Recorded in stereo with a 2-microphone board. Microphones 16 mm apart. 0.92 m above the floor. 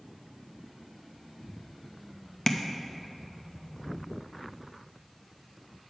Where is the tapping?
25° left (ahead or behind), 0.6 m.